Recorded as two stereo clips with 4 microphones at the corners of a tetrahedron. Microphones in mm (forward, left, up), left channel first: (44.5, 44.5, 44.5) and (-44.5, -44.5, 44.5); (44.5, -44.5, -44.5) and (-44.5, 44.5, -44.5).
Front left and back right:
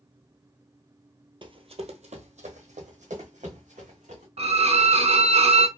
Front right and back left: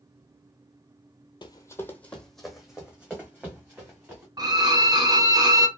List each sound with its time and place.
1.4 s running footsteps: 95° right, 0.6 m; by 4.3 s 150° right, 2 m
4.4 s a violin: 170° right, 0.5 m